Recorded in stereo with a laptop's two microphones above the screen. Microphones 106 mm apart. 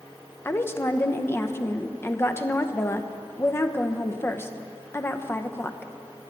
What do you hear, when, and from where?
0.5 s a woman speaking: 20° left (ahead or behind), 0.8 m